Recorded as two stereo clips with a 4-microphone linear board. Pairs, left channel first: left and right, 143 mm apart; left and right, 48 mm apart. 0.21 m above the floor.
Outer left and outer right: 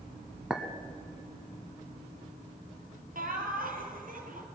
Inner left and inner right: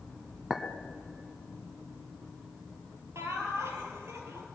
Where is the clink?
5° right (ahead or behind), 1.1 m.